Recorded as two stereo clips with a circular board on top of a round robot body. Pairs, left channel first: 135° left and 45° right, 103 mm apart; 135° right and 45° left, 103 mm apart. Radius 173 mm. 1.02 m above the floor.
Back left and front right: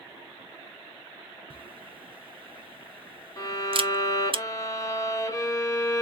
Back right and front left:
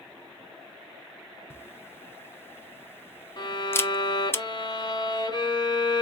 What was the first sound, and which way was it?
A camera shutter, 70° right.